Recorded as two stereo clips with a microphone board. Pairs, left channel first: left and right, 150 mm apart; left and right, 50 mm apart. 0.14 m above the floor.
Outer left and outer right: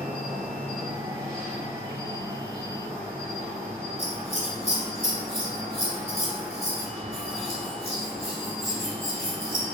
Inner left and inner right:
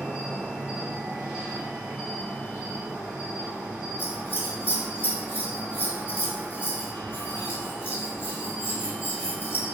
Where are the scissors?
45° left (ahead or behind), 1.6 m.